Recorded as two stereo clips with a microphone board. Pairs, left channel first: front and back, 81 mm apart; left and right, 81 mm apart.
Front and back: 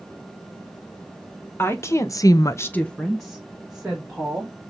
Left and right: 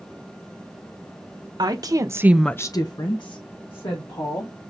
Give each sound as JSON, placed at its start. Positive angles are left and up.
{"t": 1.6, "sound": "a woman speaking", "azimuth_deg": -60, "distance_m": 1.5}